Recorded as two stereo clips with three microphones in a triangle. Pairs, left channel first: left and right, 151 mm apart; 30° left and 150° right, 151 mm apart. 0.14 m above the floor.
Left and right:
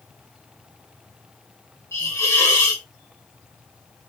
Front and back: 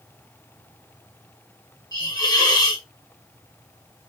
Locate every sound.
1.9 s a hiss: 45° left, 1.3 m